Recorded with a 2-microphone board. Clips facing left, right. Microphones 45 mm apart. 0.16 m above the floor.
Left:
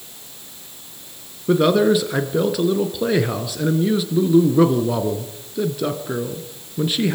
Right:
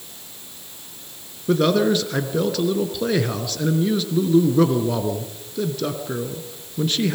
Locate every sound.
1.5 s a man speaking: 10° left (ahead or behind), 2 m